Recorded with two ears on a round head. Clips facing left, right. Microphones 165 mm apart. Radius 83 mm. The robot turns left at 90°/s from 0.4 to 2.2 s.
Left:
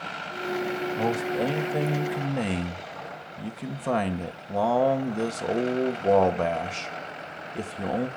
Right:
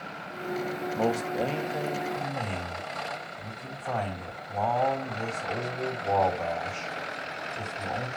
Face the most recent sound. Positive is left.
turn(degrees=105)